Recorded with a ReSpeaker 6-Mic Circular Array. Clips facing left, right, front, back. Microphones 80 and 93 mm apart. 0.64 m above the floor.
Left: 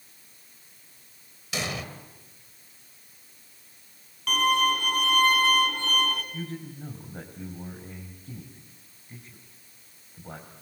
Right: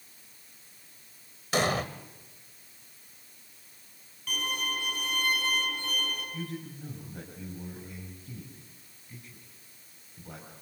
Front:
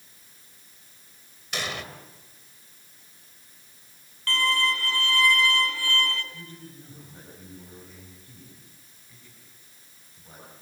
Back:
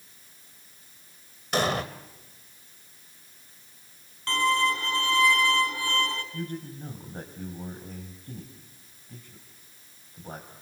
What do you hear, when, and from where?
1.5 s an explosion: 135° right, 1.6 m
4.3 s a violin: 110° left, 3 m
6.3 s a man speaking: 145° left, 4 m